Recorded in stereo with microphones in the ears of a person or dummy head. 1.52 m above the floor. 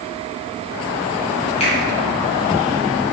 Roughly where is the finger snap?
Left.